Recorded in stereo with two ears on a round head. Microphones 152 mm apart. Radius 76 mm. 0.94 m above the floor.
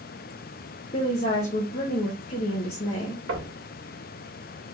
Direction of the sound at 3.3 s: 75° right (ahead or behind).